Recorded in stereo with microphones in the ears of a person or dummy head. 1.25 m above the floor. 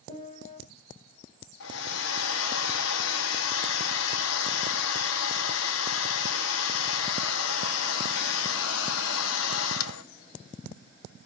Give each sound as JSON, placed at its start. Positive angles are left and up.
{"t": 0.1, "sound": "a piano", "side_deg": 35, "distance_m": 5.0}
{"t": 1.6, "sound": "a hair dryer", "side_deg": 75, "distance_m": 1.3}